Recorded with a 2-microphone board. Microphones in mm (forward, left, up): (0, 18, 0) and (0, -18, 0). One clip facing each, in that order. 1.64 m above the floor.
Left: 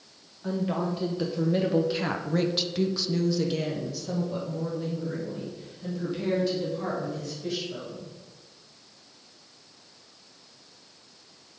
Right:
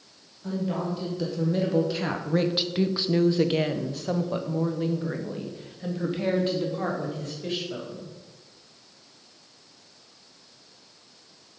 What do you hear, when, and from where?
0.4 s a woman speaking: 25° left (ahead or behind), 1.3 m; by 8.1 s 35° right (ahead or behind), 3 m